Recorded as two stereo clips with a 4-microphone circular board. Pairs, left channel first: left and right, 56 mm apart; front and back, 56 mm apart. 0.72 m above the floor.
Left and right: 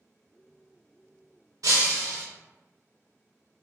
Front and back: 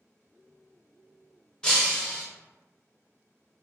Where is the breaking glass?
75° right, 0.9 m.